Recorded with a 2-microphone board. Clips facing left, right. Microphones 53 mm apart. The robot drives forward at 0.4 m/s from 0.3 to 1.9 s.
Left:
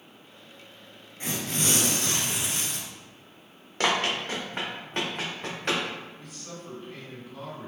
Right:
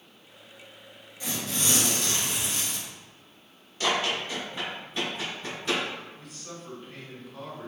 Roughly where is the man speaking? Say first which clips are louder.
Left 1 dB; centre.